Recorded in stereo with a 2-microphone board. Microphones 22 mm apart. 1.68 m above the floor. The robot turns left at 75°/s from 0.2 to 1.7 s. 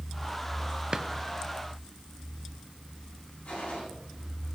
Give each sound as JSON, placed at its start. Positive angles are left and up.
{"t": 0.9, "sound": "a drawer", "side_deg": -40, "distance_m": 1.1}
{"t": 3.5, "sound": "a gunshot", "side_deg": 80, "distance_m": 8.0}